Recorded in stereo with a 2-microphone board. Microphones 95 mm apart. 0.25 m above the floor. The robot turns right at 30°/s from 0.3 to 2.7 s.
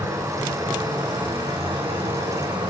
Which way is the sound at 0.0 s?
140° right.